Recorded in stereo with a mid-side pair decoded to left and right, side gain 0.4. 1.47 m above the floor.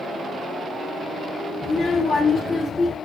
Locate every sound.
1.6 s a child speaking: 45° left, 2 m; by 3.0 s 25° left, 3 m